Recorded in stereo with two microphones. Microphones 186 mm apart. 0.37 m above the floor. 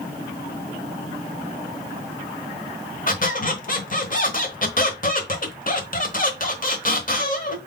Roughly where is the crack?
No crack in this recording.